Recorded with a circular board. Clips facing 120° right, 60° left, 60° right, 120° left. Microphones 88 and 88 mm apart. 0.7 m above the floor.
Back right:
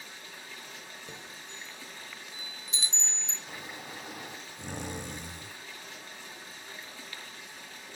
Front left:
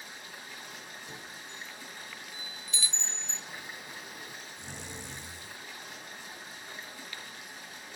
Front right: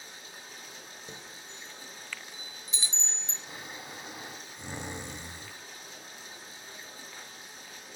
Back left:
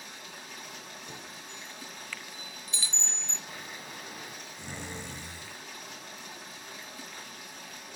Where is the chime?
95° right, 1.2 m.